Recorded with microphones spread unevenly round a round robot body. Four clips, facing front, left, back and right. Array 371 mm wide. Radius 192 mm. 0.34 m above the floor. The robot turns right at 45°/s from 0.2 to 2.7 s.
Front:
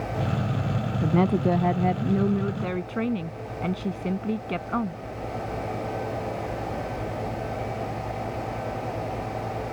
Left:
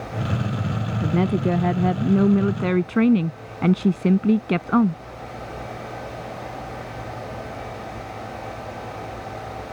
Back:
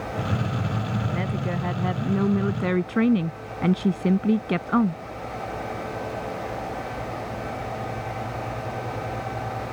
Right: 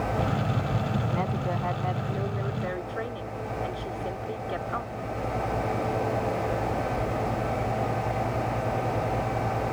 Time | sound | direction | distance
1.0 | a woman speaking | 35° left | ?